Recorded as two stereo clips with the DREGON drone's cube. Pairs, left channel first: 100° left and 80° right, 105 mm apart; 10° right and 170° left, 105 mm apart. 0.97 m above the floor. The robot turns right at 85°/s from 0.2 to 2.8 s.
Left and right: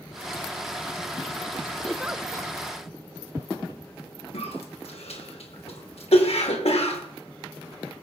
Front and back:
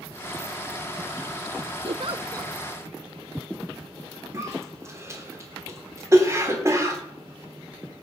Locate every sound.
1.9 s a giggle: straight behind, 0.6 m; by 2.5 s 120° right, 0.6 m
4.3 s a cough: 110° left, 3 m